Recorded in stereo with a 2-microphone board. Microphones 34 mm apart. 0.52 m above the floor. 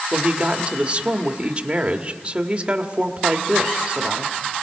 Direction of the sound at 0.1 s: 30° right (ahead or behind).